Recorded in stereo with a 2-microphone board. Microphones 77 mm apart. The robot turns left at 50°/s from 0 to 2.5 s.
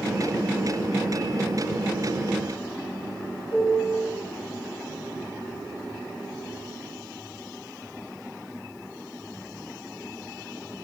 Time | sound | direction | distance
3.5 | a piano | 50° left (ahead or behind) | 1.4 m